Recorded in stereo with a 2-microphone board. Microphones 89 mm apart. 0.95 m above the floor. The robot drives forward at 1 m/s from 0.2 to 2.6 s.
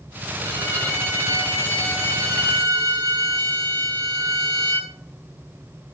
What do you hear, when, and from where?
0.4 s a violin: 35° right (ahead or behind), 7 m; by 4.9 s 45° right (ahead or behind), 5 m